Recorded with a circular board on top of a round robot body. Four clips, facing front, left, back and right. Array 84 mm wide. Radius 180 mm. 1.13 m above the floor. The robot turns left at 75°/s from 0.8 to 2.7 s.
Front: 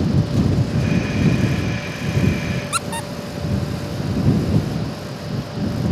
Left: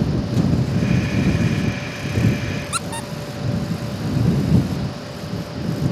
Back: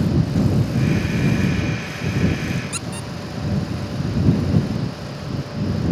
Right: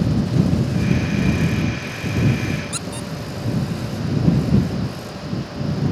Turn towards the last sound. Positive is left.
turn(degrees=25)